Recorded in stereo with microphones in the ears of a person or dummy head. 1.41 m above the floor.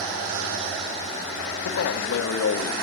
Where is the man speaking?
80° left, 1.2 m.